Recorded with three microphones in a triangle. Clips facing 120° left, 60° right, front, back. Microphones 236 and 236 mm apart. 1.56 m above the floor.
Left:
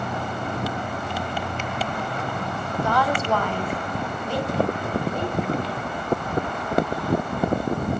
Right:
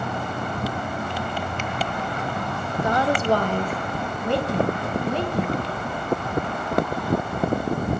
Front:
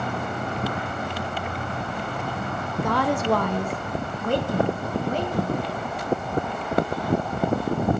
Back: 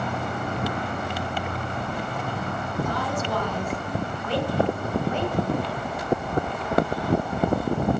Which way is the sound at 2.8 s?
15° left.